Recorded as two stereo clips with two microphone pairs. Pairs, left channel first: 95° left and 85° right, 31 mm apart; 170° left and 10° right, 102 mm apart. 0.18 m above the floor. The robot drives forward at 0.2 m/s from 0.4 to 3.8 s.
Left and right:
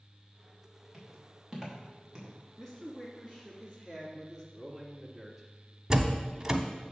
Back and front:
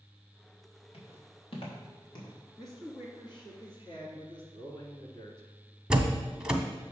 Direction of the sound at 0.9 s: 170° right.